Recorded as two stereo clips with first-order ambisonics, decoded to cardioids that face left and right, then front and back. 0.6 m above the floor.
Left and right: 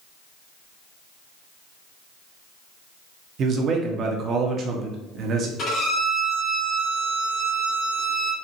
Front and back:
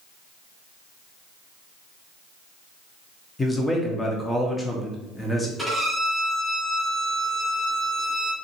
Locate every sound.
3.4 s a man speaking: 75° right, 0.7 m
5.6 s a violin: 80° left, 1.5 m